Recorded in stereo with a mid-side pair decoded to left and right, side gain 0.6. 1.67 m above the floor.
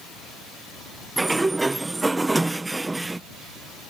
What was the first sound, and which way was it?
A sliding door, 15° right.